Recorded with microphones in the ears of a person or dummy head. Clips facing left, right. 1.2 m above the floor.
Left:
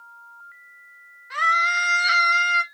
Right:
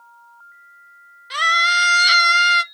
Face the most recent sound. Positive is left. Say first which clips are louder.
# right 2 dB
turn(degrees=-45)  # may be behind; listen again after turning